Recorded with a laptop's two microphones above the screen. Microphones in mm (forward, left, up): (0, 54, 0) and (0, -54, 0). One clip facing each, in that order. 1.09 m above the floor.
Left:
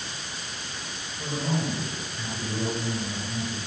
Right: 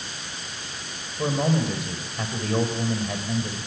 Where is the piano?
I don't hear a piano.